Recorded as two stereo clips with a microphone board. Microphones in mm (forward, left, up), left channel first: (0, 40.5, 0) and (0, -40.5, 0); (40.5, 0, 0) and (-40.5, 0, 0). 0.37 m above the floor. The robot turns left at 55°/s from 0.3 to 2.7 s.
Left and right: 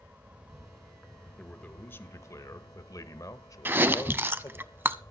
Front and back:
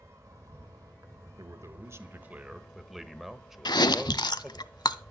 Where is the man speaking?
170° left, 1.1 m; by 4.7 s 95° left, 1.1 m.